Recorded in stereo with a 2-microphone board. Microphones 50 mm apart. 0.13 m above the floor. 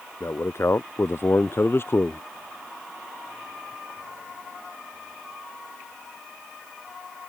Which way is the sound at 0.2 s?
65° left (ahead or behind).